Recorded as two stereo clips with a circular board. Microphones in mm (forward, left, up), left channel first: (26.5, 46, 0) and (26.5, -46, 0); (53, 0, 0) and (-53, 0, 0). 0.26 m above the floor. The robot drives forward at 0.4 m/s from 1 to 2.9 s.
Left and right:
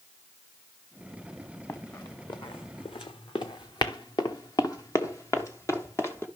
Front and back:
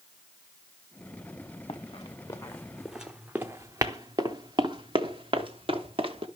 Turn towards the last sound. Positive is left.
turn(degrees=150)